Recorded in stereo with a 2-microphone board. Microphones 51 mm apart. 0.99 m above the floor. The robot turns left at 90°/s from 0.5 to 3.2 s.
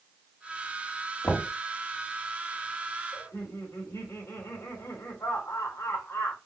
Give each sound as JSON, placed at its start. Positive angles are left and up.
{"t": 1.2, "sound": "knocking", "side_deg": 60, "distance_m": 1.4}
{"t": 3.1, "sound": "laughter", "side_deg": 75, "distance_m": 3.0}